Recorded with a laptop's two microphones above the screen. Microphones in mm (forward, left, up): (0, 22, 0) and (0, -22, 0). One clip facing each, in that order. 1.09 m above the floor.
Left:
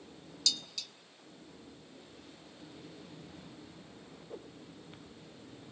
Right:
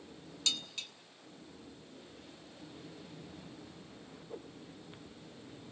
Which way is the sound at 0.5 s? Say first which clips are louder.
Right 1 dB; 35° right (ahead or behind).